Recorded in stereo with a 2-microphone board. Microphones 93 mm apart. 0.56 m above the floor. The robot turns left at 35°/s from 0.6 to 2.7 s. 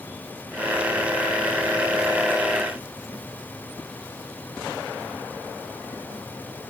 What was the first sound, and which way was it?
Only background noise.